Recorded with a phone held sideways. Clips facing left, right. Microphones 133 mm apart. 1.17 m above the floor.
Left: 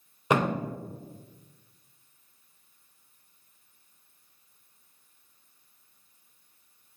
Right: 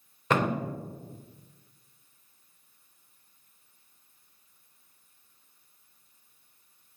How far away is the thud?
About 0.6 m.